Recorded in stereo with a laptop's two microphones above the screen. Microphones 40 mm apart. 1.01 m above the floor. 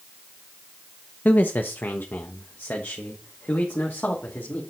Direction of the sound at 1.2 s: 40° left (ahead or behind).